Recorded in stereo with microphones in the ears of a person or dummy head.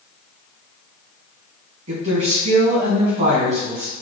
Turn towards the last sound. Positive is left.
turn(degrees=-40)  # may be behind; listen again after turning